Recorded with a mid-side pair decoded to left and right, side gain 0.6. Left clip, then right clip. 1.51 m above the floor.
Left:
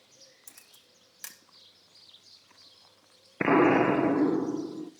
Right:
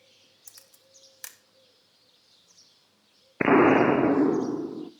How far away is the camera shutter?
About 1.4 m.